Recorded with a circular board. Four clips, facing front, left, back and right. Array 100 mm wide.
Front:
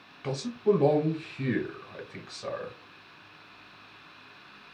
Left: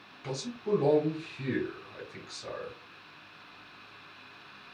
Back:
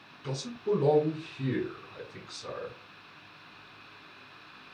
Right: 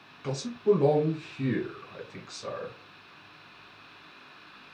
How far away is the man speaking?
About 1.4 m.